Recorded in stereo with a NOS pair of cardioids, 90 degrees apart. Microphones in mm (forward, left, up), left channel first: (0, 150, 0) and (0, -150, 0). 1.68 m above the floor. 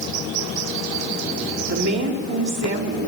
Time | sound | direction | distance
1.7 | a woman speaking | 65° right | 3 m